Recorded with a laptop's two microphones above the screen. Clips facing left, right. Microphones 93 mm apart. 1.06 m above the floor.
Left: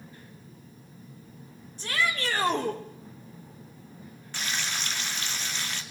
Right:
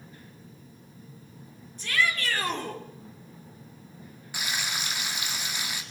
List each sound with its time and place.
1.8 s a shout: 30° left (ahead or behind), 3.5 m; by 2.8 s 25° left (ahead or behind), 3 m
4.3 s frying: 10° right (ahead or behind), 1.9 m